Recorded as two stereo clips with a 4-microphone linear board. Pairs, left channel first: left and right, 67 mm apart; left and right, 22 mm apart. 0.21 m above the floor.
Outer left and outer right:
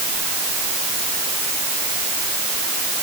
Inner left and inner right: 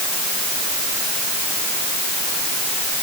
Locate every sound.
Only background noise.